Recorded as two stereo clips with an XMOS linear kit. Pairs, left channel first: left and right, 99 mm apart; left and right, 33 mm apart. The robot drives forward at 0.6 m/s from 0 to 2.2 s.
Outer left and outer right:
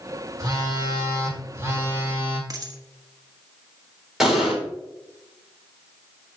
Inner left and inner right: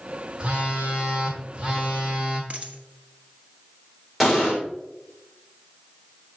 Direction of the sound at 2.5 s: 40° right (ahead or behind).